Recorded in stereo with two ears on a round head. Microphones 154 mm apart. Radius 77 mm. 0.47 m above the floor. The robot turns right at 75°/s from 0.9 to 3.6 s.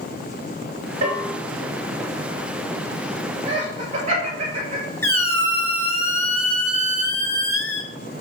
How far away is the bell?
About 2.5 m.